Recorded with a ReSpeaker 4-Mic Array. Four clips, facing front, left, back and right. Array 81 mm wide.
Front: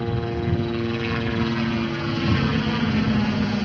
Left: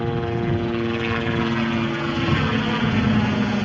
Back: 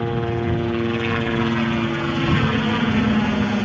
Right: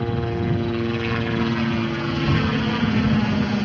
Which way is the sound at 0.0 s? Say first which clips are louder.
Left 1 dB, back 3 dB; 155° left.